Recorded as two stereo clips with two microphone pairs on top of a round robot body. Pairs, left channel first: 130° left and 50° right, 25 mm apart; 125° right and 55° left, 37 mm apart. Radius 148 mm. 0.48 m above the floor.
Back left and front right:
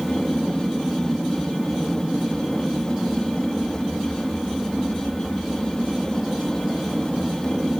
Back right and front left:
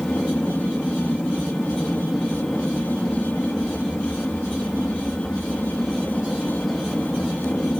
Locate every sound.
0.0 s an aircraft: 140° right